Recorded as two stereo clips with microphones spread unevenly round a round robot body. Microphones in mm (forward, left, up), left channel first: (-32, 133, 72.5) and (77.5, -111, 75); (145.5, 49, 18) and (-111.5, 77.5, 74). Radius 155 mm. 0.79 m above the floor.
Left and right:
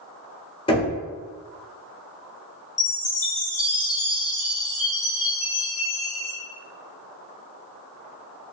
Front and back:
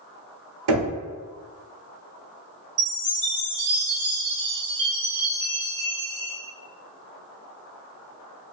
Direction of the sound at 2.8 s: 165° right.